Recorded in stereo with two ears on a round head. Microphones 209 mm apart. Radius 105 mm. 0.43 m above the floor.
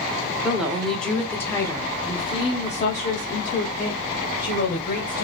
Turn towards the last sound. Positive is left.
turn(degrees=45)  # may be behind; listen again after turning